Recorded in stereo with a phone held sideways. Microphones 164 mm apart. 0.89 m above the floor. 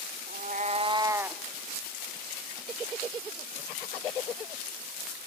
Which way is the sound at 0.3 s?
65° right (ahead or behind).